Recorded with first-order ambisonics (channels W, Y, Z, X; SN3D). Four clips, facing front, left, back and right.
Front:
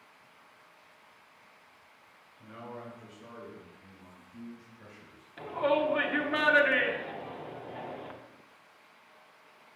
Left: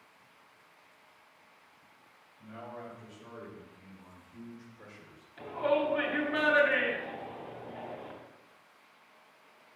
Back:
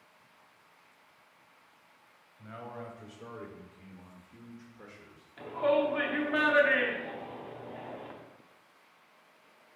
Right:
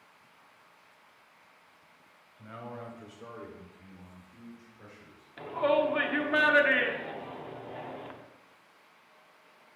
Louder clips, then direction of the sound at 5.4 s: Right 3 dB, even; 65° right.